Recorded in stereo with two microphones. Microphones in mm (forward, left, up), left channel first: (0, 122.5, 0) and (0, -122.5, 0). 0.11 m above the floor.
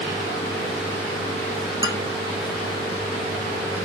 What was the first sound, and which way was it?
A man speaking, 20° right (ahead or behind).